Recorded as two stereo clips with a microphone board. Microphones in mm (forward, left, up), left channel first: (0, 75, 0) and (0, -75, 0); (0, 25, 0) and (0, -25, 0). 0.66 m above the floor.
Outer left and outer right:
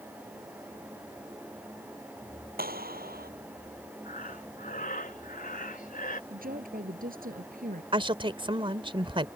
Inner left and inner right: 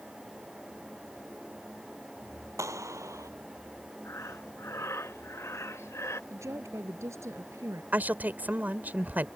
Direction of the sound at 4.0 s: 70° left (ahead or behind).